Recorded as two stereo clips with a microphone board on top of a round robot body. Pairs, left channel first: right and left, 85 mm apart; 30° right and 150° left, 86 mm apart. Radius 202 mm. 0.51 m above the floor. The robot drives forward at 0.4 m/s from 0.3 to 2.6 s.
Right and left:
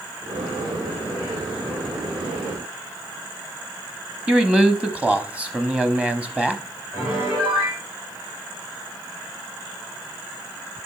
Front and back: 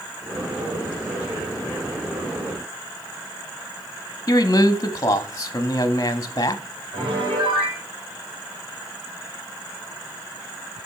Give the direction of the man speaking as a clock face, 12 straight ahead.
11 o'clock.